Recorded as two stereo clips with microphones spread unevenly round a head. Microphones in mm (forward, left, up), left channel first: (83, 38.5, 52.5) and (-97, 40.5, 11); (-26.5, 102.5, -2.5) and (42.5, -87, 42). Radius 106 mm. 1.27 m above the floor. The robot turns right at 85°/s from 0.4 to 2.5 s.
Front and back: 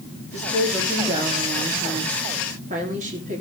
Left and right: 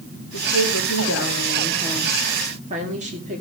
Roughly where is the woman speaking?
Ahead left.